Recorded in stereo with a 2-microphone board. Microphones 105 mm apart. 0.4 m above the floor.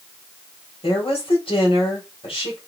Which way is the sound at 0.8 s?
60° left (ahead or behind).